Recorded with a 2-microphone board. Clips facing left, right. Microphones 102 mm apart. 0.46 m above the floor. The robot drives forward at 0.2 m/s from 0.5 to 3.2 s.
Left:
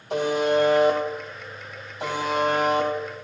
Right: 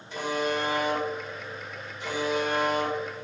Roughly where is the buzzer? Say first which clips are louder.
Left 7 dB; left.